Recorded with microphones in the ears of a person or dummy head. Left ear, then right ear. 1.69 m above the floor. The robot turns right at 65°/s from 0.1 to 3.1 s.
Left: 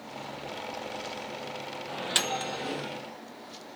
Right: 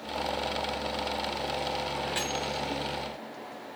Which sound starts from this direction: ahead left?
A microwave, at 1.9 s.